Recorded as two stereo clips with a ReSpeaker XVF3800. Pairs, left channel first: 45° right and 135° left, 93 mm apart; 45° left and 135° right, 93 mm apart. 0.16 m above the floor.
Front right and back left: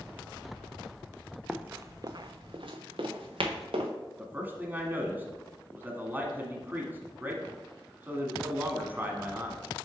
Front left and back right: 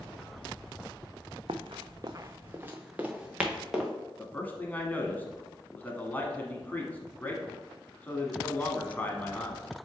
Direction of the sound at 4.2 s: 95° left.